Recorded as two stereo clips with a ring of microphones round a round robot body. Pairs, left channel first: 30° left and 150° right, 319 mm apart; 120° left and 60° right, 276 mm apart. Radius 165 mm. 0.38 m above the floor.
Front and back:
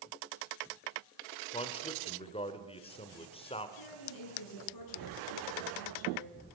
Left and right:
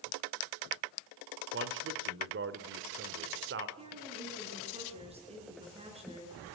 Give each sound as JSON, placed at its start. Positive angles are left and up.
{"t": 1.5, "sound": "a man speaking", "azimuth_deg": -35, "distance_m": 1.5}
{"t": 3.8, "sound": "a woman speaking", "azimuth_deg": 10, "distance_m": 7.0}